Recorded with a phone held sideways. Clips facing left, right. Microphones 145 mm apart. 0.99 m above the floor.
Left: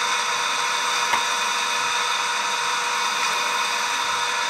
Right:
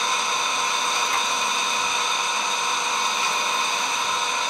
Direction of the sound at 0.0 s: 20° right (ahead or behind).